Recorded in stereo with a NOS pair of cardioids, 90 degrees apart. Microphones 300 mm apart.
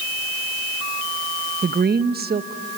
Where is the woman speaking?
30° right, 1.3 m.